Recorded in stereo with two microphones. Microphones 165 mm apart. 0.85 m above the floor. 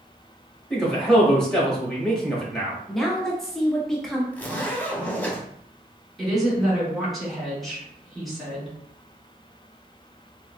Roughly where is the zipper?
Centre.